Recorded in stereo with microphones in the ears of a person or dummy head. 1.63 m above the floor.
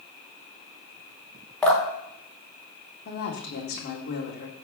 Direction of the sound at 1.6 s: 5° left (ahead or behind).